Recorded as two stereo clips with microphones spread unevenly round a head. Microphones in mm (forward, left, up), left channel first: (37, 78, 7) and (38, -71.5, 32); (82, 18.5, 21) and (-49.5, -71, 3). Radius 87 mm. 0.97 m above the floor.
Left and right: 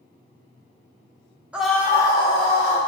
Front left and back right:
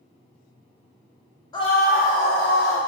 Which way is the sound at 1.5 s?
Straight ahead.